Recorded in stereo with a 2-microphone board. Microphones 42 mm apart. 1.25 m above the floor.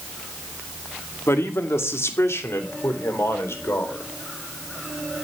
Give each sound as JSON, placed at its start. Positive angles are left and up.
{"t": 1.3, "sound": "a man speaking", "side_deg": 85, "distance_m": 2.0}